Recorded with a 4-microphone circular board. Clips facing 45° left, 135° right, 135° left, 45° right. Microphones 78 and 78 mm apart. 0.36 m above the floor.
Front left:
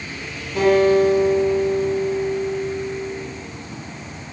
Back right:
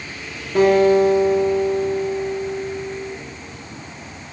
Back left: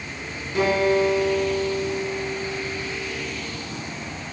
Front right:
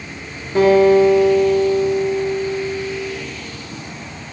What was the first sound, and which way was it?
A guitar, 95° right.